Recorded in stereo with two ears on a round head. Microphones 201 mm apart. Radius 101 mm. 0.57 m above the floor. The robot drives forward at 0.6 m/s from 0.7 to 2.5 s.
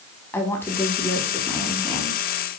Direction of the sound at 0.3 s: 10° left (ahead or behind).